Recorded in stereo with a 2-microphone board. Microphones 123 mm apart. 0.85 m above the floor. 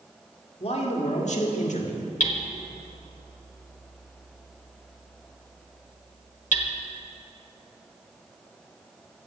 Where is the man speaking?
50° left (ahead or behind), 2 m; by 2.0 s 70° left (ahead or behind), 1.6 m.